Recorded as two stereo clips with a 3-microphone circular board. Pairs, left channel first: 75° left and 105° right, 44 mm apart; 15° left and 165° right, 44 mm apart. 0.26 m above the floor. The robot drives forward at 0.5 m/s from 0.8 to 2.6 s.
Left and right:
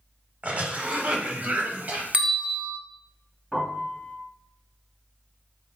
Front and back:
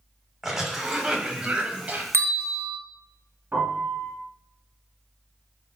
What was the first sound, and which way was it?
A cough, 80° right.